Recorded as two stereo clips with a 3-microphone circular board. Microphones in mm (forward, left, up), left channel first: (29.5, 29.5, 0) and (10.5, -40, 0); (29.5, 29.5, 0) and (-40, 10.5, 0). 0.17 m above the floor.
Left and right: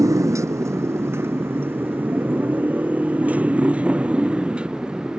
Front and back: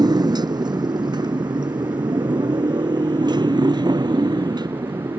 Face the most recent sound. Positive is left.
turn(degrees=175)